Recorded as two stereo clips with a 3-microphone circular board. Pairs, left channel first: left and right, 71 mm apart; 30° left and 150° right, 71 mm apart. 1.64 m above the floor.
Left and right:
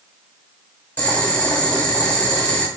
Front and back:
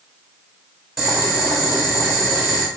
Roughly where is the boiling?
Behind left.